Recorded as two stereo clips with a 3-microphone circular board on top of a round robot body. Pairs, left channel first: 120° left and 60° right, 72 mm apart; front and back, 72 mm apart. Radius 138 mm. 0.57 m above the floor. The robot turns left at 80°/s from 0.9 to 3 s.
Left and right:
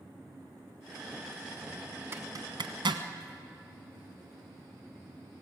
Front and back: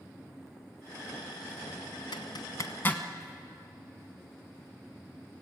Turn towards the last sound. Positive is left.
turn(degrees=-75)